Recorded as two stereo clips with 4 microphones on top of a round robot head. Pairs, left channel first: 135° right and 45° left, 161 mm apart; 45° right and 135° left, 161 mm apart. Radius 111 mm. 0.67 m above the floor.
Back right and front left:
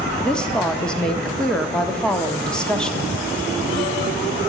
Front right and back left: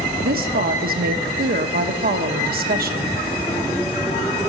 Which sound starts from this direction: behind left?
A woman speaking, at 0.2 s.